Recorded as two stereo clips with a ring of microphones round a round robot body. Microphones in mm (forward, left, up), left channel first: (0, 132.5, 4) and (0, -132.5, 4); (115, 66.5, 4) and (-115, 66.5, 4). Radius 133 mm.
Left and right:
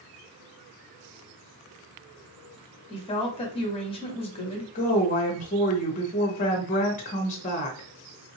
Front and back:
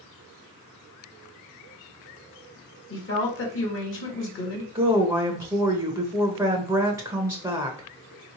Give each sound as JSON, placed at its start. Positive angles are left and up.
{"t": 2.9, "sound": "a woman speaking", "azimuth_deg": 20, "distance_m": 1.6}
{"t": 4.8, "sound": "a woman speaking", "azimuth_deg": 115, "distance_m": 0.9}